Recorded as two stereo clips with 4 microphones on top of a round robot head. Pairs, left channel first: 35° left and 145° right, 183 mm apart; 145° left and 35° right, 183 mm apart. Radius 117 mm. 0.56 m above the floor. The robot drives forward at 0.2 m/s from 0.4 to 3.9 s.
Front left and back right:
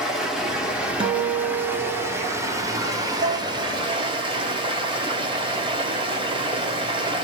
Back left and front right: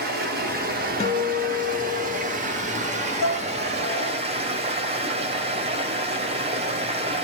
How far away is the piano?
About 0.7 m.